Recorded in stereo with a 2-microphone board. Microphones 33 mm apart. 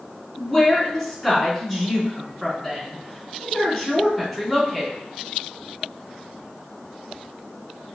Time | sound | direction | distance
0.4 | a woman speaking | 5° right (ahead or behind) | 3.5 m